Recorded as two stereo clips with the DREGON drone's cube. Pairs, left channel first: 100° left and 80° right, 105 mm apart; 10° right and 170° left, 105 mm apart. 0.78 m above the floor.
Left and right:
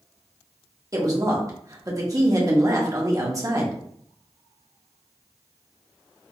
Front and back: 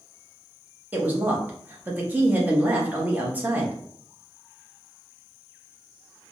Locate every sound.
0.9 s a woman speaking: 120° right, 0.8 m